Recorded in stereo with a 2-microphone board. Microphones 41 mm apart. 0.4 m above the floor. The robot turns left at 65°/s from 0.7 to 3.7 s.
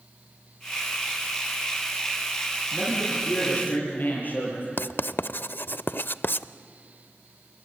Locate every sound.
2.7 s a man speaking: 160° right, 9.5 m; by 4.7 s 135° left, 9.5 m
4.8 s writing: 55° left (ahead or behind), 0.5 m